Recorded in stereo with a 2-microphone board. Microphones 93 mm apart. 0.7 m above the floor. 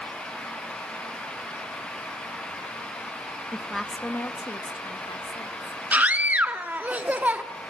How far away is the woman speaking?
About 0.7 m.